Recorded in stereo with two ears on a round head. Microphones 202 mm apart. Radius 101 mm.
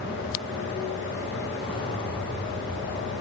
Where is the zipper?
25° left (ahead or behind), 3 m.